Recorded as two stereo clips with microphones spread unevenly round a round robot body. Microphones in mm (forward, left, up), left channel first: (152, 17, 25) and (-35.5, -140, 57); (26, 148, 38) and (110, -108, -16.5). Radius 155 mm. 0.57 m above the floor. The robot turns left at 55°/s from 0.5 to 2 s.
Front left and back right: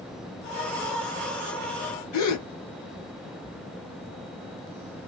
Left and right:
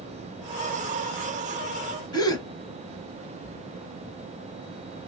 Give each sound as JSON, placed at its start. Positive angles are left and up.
{"t": 2.1, "sound": "a gasp", "azimuth_deg": 35, "distance_m": 0.9}